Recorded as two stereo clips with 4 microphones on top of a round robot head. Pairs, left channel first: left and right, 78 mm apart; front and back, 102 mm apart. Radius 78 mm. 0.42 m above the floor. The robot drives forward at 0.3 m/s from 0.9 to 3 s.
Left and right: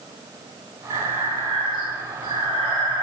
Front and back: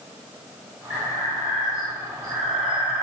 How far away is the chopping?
I don't hear chopping.